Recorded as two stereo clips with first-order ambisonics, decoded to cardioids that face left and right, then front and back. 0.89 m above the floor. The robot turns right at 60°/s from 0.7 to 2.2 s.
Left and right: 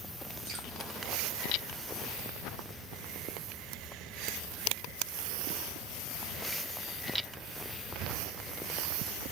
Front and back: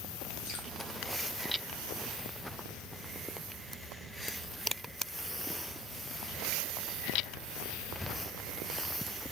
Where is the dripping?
25° right, 3 m.